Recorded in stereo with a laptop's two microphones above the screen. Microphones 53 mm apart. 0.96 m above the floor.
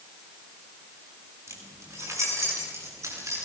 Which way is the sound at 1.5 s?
75° right (ahead or behind).